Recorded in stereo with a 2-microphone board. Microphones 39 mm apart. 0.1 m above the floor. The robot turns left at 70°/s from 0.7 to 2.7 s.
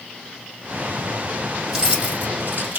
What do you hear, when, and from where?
1.7 s keys jangling: 10° right (ahead or behind), 2.5 m; by 2.8 s 65° right (ahead or behind), 2.5 m